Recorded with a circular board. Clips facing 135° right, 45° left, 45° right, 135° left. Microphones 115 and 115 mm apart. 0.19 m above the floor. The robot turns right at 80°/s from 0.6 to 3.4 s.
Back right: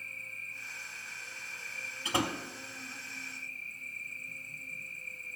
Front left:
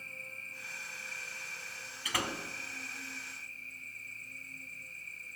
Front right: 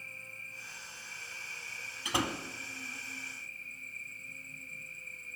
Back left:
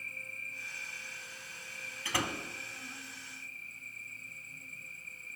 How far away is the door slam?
About 1.0 m.